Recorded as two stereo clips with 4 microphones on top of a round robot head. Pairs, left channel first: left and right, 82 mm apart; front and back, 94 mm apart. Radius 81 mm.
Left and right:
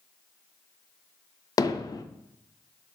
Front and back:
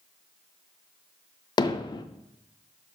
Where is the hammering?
45° left, 0.6 m.